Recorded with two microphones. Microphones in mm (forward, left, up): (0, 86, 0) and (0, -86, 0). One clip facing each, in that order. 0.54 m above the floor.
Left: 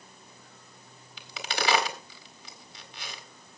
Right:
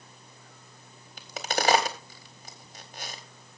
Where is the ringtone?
I don't hear a ringtone.